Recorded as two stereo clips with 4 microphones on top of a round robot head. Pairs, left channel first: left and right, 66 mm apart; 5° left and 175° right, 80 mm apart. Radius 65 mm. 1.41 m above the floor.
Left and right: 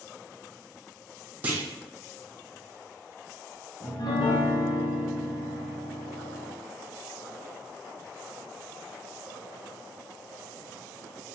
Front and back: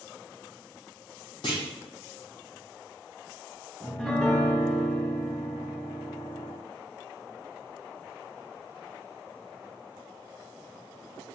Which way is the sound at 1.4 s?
35° right.